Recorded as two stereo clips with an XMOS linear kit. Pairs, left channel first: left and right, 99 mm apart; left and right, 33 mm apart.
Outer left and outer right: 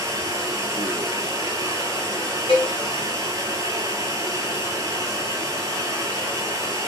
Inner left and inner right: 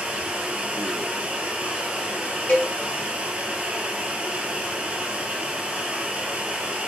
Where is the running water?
35° right (ahead or behind), 0.9 m.